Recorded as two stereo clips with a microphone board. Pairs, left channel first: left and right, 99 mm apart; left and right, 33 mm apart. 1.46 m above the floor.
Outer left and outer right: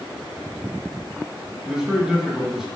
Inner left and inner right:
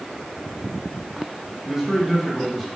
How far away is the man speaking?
About 1.5 m.